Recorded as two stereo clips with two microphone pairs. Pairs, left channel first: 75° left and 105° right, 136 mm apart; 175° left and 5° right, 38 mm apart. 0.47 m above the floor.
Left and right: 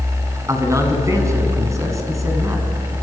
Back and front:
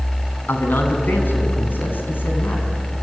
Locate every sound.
0.5 s a man speaking: 170° right, 5 m